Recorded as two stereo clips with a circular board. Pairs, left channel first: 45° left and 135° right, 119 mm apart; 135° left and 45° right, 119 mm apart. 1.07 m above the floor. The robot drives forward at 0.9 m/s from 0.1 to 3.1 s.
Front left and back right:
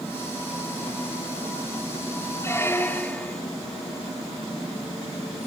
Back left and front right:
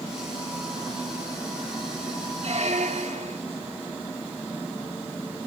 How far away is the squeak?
About 1.7 m.